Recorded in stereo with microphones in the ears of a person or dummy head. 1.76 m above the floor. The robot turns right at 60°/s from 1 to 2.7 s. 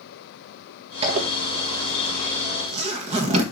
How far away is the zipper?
About 1.5 m.